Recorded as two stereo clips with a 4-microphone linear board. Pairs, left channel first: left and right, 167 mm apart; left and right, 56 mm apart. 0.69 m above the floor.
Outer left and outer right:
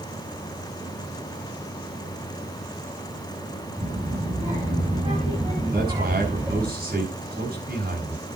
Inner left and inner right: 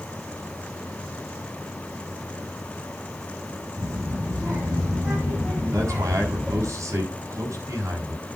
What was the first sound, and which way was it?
A child speaking, 35° right (ahead or behind).